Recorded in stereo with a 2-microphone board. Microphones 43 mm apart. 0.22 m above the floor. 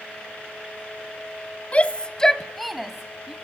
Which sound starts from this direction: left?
A shout, at 1.7 s.